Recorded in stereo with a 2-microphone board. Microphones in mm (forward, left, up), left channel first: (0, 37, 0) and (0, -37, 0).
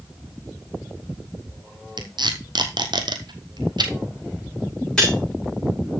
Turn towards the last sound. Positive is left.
turn(degrees=10)  # may be behind; listen again after turning